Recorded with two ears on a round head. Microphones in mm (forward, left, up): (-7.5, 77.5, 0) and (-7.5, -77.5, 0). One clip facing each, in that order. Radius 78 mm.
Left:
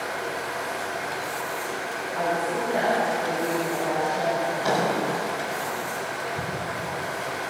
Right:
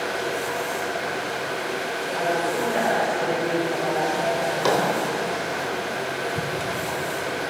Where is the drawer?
80° right, 3.5 m.